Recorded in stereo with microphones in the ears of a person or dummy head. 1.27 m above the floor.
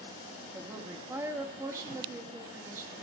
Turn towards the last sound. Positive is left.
turn(degrees=-15)  # may be behind; listen again after turning